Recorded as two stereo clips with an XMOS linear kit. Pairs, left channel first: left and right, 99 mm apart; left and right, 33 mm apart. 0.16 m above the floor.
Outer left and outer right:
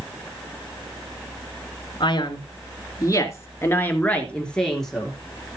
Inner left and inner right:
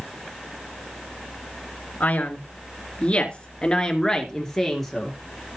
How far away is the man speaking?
About 2.5 m.